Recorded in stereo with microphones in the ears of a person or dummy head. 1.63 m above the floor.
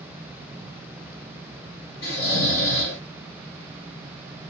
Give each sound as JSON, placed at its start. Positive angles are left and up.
{"t": 2.0, "sound": "snoring", "side_deg": 65, "distance_m": 1.1}